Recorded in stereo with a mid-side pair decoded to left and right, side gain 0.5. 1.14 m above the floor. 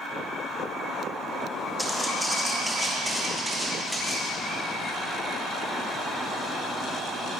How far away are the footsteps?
About 3.5 m.